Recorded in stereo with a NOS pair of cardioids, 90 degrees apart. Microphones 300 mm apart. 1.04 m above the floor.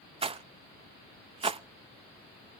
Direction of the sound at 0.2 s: 20° right.